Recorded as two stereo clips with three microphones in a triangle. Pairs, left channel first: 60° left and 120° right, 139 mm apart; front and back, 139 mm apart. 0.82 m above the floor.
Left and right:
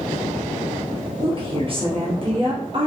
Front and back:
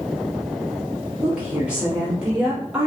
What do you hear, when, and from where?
1.2 s a woman speaking: 105° right, 1.2 m